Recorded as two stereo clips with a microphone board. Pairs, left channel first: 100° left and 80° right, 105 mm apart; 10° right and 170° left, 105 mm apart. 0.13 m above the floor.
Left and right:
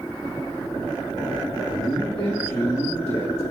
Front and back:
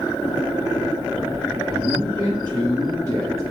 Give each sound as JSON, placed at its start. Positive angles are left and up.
{"t": 1.7, "sound": "a man speaking", "azimuth_deg": 125, "distance_m": 3.5}